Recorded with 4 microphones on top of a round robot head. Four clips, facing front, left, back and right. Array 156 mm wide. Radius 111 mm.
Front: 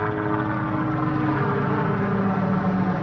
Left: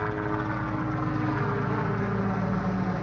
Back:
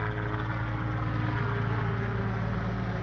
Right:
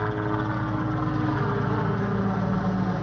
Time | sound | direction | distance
0.0 | a helicopter | 15° right | ?